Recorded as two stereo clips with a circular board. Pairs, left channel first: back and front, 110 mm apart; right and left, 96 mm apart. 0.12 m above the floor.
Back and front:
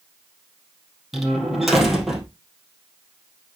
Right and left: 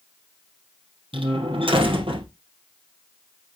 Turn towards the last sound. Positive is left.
turn(degrees=90)